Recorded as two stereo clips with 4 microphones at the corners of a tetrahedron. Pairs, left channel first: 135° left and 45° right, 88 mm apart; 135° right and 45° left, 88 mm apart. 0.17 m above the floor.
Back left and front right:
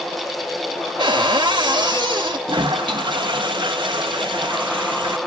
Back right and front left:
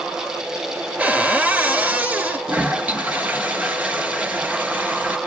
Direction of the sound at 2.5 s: 25° right.